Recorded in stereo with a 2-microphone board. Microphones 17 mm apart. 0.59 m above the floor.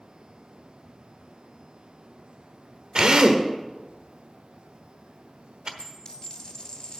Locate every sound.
3.0 s a drill: 55° right (ahead or behind), 1.1 m
5.8 s a dropped coin: 45° left (ahead or behind), 1.6 m